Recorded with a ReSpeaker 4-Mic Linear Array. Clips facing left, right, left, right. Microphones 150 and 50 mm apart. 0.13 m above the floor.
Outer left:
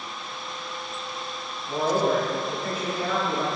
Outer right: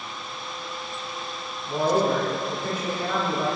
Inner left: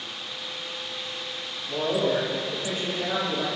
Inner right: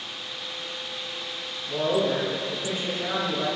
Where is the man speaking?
25° right (ahead or behind), 1.5 m.